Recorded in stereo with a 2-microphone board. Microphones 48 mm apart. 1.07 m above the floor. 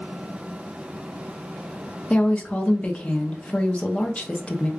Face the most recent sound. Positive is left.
turn(degrees=25)  # may be behind; listen again after turning